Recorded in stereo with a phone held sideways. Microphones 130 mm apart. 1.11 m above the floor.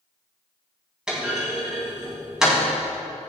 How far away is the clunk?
About 3.5 m.